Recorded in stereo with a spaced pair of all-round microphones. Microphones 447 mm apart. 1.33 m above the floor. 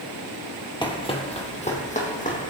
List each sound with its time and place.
0.8 s running footsteps: 10° left (ahead or behind), 1.7 m; by 2.5 s 15° left (ahead or behind), 3.5 m